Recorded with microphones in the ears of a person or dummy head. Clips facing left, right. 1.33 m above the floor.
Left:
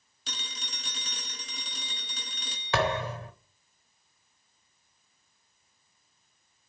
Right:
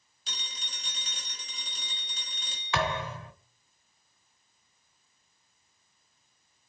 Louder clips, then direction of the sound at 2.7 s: Left 3 dB; 25° left (ahead or behind).